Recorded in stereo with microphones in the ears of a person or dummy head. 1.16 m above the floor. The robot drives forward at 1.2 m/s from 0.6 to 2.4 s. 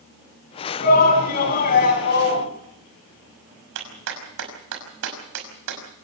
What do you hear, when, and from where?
0.8 s a shout: 45° left (ahead or behind), 9 m; by 2.5 s 55° left (ahead or behind), 7.5 m
3.8 s a clap: 75° right (ahead or behind), 6 m